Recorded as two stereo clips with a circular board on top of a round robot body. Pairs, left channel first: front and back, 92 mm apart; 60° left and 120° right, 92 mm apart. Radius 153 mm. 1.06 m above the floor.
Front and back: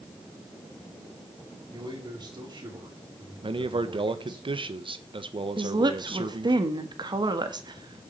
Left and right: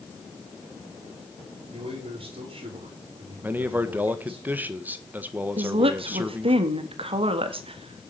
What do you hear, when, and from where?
1.7 s a man speaking: 140° right, 5 m
3.4 s a man speaking: 170° left, 1.6 m
5.6 s a woman speaking: 140° right, 1.8 m